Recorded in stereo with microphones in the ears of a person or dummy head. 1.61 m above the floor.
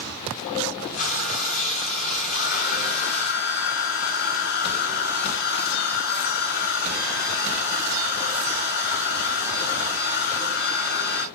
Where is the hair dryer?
45° left (ahead or behind), 6 m.